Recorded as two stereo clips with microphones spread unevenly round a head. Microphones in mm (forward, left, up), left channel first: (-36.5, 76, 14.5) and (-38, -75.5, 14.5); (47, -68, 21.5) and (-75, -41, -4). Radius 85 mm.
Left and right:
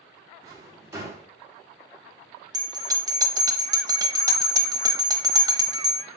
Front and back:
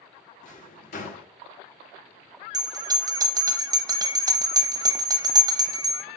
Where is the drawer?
15° right, 0.7 m.